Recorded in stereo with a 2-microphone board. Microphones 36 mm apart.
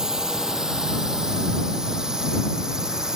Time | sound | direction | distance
0.0 | a drone | 20° right (ahead or behind) | ?